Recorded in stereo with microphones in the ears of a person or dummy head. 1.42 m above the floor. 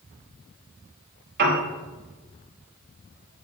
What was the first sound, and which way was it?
A piano, 55° right (ahead or behind).